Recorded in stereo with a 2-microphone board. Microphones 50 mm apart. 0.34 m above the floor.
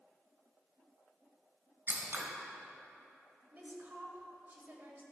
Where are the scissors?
45° right (ahead or behind), 1.0 m.